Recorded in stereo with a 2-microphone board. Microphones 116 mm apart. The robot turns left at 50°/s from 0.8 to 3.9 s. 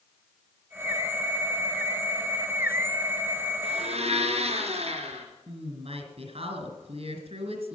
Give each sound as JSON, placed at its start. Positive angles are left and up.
{"t": 3.6, "sound": "a blender", "side_deg": -60, "distance_m": 3.5}
{"t": 5.5, "sound": "a woman speaking", "side_deg": -60, "distance_m": 3.5}